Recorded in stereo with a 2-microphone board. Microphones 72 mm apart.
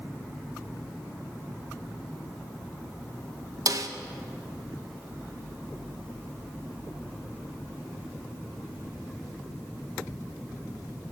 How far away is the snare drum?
About 0.8 m.